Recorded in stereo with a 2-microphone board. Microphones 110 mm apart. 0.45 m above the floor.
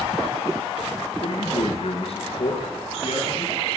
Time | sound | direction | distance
1.2 | a man speaking | 55° left (ahead or behind) | 5.5 m